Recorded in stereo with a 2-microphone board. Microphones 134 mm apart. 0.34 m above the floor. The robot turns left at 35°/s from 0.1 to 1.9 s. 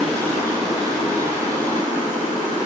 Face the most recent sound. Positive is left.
turn(degrees=110)